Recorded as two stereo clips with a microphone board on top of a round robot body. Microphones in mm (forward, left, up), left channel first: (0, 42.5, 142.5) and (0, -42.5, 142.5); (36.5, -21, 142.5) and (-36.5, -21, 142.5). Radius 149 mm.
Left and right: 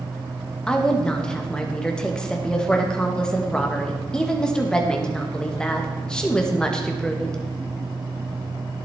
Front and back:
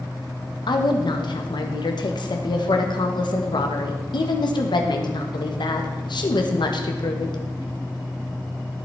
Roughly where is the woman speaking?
Ahead.